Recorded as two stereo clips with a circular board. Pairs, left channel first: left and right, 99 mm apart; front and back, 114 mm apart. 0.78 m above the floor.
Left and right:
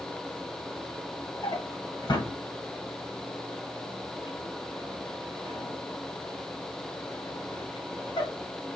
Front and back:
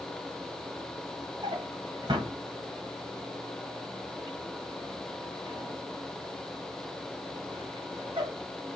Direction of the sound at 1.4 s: 130° left.